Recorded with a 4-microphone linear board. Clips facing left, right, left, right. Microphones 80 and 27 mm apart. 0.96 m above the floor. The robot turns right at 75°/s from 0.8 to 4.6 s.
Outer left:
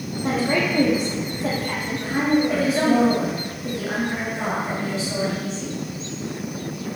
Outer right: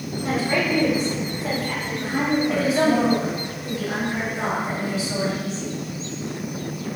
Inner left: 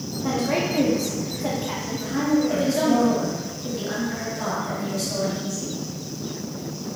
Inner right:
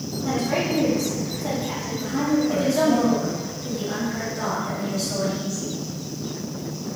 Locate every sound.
0.2 s a woman speaking: 35° left (ahead or behind), 1.7 m; by 3.0 s 20° right (ahead or behind), 1.7 m
2.0 s a woman speaking: 10° left, 2 m; by 5.8 s 155° right, 2 m